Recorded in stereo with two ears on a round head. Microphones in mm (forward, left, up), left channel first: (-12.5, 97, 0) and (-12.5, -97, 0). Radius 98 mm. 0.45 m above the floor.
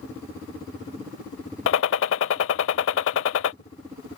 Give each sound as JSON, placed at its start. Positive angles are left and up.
{"t": 1.7, "sound": "a gunshot", "side_deg": 75}